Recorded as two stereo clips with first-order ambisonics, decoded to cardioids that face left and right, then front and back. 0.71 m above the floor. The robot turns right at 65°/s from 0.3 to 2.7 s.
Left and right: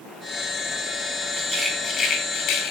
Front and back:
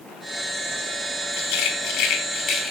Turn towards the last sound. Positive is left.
turn(degrees=70)